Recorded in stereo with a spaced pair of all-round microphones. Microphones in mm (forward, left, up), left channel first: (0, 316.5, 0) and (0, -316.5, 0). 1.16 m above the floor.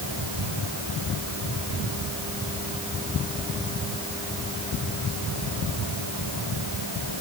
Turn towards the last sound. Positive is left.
No sound to turn to.